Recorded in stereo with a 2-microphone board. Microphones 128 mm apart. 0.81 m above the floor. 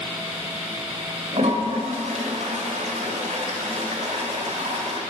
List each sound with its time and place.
1.3 s a toilet flushing: 65° right (ahead or behind), 1.9 m